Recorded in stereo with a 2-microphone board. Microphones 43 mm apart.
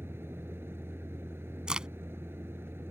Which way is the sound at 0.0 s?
80° right.